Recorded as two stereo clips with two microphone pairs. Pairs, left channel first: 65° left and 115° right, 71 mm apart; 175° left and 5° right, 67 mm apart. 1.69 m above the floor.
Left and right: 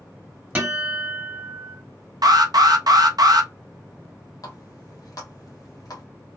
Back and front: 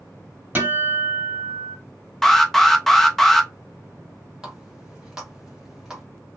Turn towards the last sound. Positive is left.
turn(degrees=75)